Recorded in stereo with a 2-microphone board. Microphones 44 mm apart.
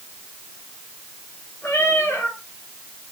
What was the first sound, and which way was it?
A cat meowing, 65° left (ahead or behind).